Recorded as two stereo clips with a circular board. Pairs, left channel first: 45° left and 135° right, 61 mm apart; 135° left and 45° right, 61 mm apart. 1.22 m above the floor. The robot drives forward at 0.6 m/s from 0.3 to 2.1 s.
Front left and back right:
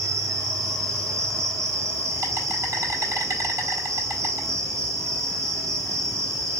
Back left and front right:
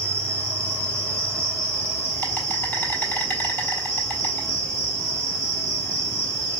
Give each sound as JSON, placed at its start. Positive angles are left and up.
{"t": 0.0, "sound": "an insect", "azimuth_deg": -160, "distance_m": 2.0}